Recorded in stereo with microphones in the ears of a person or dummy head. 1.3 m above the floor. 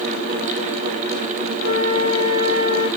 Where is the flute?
50° right (ahead or behind), 1.8 m.